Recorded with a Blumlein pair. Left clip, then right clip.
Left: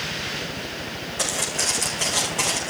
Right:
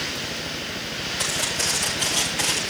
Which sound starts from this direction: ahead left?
Footsteps, at 1.2 s.